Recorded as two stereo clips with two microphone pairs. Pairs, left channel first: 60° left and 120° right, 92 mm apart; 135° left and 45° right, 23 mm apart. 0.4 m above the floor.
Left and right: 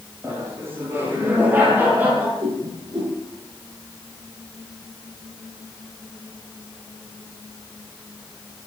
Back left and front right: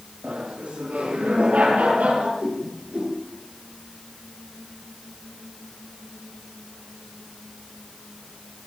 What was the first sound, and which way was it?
Laughter, 60° right.